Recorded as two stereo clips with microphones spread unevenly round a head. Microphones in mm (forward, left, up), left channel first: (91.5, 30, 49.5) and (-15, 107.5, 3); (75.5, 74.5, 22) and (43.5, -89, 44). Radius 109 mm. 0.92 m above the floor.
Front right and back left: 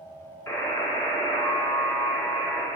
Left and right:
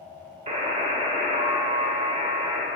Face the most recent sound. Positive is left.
turn(degrees=-80)